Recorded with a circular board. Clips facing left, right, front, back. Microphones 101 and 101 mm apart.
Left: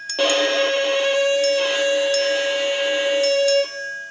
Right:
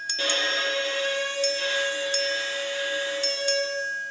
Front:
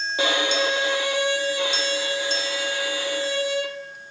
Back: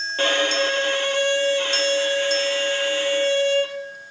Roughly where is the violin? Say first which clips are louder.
Left 11 dB, back 2 dB; left.